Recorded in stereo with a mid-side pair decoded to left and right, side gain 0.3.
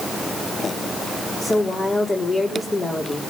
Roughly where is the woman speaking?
Ahead left.